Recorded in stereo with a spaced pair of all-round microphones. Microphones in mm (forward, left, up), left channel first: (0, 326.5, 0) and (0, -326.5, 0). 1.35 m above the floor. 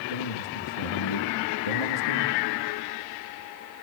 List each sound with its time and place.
0.1 s a man speaking: 55° left (ahead or behind), 2.5 m